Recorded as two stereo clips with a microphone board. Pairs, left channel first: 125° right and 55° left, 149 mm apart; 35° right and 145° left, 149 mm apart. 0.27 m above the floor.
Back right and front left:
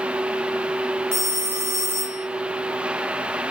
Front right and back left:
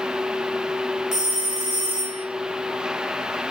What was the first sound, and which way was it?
A phone ringing, 125° left.